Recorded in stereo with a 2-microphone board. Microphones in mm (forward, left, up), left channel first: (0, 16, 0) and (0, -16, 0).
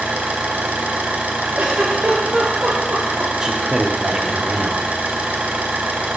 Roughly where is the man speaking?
Right.